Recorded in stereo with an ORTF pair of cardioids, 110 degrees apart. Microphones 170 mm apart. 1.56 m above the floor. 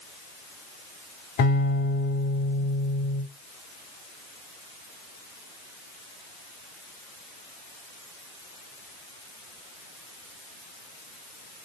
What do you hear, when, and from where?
1.4 s a guitar: 70° left, 4 m